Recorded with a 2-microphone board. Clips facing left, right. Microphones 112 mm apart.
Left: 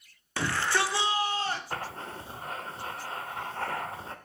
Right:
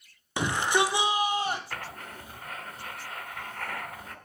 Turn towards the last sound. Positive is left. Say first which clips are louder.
# left 3 dB
turn(degrees=30)  # may be behind; listen again after turning